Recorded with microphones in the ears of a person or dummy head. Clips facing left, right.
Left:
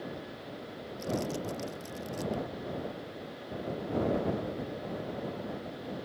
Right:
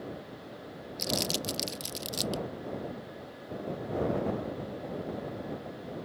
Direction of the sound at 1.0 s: 75° right (ahead or behind).